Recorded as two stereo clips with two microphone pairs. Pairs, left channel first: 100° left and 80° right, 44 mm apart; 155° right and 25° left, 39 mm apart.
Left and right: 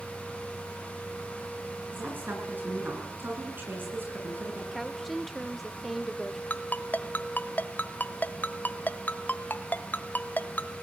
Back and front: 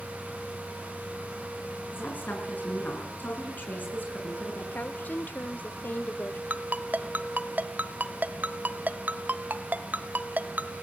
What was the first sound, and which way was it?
A woman speaking, 120° right.